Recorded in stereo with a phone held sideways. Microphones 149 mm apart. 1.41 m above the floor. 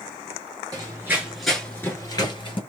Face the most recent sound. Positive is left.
turn(degrees=35)  # may be behind; listen again after turning